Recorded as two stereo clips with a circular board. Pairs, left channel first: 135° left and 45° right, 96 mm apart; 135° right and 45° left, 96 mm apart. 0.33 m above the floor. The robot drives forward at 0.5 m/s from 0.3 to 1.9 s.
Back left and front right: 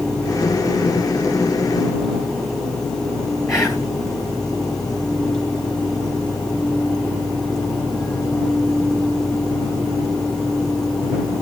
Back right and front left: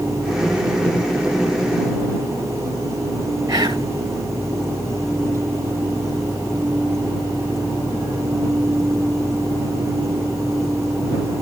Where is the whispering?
95° left, 1.9 m.